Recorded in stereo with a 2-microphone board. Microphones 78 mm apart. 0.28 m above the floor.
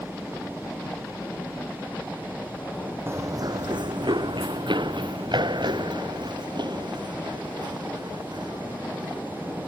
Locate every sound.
3.1 s running footsteps: 35° right (ahead or behind); by 9.6 s 60° right (ahead or behind)